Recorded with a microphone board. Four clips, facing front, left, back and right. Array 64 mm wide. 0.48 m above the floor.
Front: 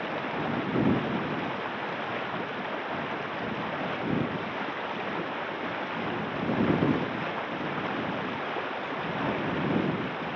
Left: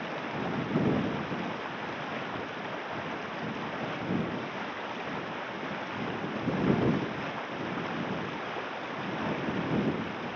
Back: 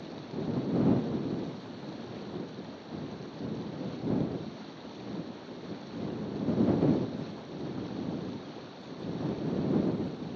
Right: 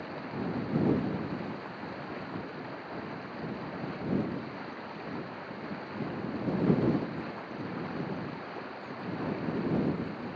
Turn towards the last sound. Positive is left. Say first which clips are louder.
# left 3 dB, front 7 dB
turn(degrees=20)